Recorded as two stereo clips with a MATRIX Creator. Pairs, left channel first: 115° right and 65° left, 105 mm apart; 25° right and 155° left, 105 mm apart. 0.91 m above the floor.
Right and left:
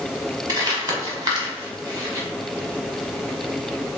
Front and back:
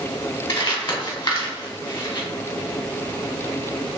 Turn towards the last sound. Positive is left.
turn(degrees=15)